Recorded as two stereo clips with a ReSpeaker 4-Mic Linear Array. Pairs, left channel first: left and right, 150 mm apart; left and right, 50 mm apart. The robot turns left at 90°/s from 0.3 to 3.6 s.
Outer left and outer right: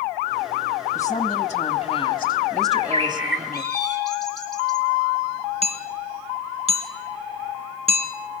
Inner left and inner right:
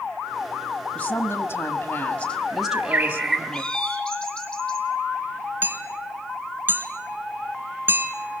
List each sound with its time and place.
0.9 s a woman speaking: 155° left, 1.5 m; by 3.6 s 80° right, 1.5 m
2.6 s a bird: 115° right, 4 m; by 4.8 s 155° left, 4 m
5.6 s hammering: 45° right (ahead or behind), 1.9 m